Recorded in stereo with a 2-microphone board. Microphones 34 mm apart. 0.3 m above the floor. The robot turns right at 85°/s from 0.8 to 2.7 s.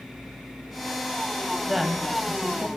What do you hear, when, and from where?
1.7 s a woman speaking: 15° right, 1.7 m; by 2.7 s 70° left, 1.7 m